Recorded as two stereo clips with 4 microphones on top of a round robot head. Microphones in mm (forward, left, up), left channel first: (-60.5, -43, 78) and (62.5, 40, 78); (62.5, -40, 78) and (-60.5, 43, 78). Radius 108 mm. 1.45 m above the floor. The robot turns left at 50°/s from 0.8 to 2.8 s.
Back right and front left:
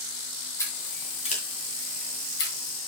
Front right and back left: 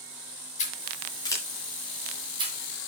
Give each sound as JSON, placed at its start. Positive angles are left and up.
{"t": 0.6, "sound": "scissors", "azimuth_deg": -75, "distance_m": 1.9}